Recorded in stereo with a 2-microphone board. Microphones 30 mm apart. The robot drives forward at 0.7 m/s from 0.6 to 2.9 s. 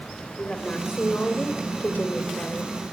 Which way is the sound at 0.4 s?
50° left (ahead or behind).